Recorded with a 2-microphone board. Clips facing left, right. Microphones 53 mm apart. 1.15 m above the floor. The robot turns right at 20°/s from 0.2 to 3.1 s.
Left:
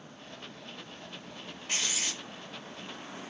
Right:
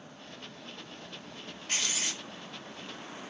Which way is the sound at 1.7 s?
10° left (ahead or behind).